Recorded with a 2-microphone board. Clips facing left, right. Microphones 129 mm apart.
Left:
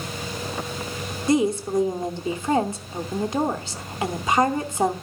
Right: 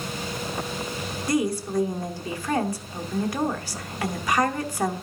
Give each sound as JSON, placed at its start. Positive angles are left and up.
{"t": 1.3, "sound": "a woman speaking", "side_deg": 25, "distance_m": 0.9}